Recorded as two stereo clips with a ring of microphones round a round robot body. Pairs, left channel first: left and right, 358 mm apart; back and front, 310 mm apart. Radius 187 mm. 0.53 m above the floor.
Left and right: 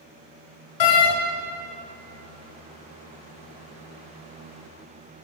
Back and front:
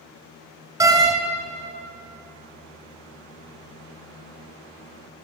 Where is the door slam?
80° left, 2.5 m.